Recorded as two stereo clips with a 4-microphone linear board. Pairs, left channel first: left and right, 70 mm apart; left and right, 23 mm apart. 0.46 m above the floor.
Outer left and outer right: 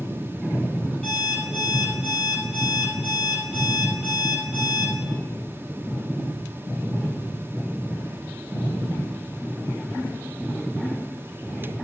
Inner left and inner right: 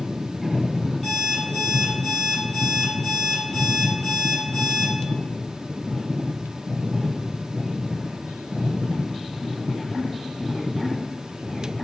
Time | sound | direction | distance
1.0 | an alarm clock | 15° left (ahead or behind) | 5.5 m